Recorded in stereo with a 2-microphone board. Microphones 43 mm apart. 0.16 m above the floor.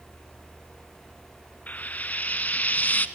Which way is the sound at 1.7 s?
40° left (ahead or behind).